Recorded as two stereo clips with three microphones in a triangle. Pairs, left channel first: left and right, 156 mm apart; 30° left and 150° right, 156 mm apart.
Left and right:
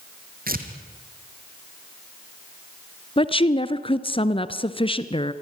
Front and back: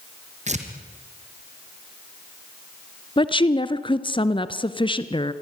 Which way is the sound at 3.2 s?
65° left.